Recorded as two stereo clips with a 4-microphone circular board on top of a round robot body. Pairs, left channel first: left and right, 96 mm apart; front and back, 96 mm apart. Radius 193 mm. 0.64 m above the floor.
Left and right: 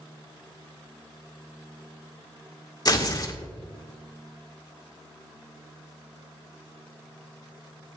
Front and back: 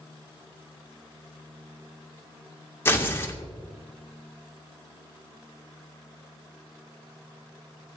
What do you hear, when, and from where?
2.9 s tearing paper: 60° left, 1.9 m